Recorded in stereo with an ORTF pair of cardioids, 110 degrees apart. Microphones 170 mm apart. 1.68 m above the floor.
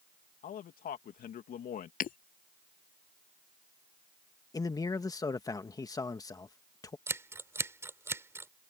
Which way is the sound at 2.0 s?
55° left.